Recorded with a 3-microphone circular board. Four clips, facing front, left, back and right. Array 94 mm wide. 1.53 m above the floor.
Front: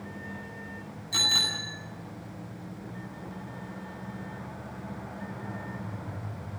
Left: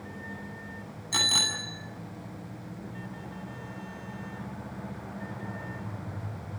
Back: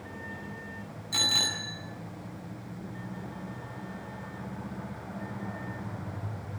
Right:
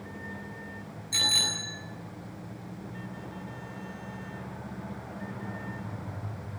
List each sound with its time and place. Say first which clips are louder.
1.1 s a bicycle bell: left 2 dB, even; 90° left, 9 m